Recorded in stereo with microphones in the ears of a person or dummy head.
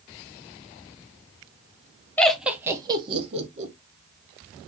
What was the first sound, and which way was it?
Laughter, 5° left (ahead or behind).